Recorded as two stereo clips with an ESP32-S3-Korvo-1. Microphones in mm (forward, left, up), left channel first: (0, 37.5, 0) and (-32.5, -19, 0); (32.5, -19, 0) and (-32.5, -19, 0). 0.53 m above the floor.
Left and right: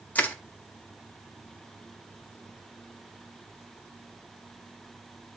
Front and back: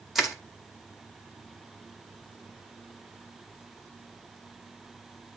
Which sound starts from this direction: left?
Crushing, at 0.1 s.